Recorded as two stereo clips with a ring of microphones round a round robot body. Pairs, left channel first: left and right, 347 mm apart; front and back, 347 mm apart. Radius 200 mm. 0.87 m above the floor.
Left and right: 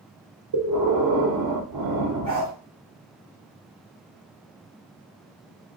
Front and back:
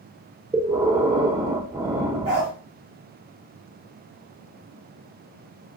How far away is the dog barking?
About 1.5 m.